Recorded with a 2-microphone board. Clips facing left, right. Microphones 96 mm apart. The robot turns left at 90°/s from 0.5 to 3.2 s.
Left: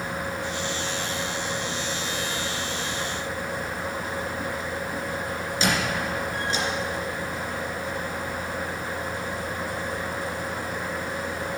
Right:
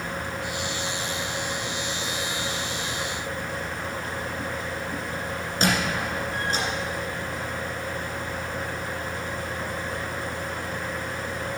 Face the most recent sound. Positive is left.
turn(degrees=-45)  # may be behind; listen again after turning